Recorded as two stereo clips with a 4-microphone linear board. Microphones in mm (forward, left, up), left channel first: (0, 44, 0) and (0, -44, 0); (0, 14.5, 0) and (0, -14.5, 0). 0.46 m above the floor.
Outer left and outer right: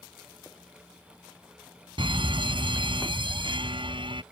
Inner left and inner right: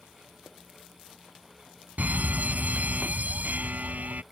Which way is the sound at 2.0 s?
70° right (ahead or behind).